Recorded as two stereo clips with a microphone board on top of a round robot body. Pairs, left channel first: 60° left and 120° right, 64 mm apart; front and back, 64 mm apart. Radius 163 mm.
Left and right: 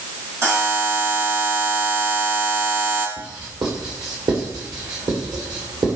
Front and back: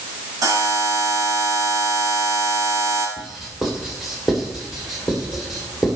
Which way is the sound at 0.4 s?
165° right.